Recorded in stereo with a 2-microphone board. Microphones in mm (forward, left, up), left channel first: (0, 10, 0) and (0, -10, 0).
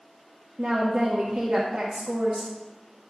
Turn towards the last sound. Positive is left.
turn(degrees=-70)  # may be behind; listen again after turning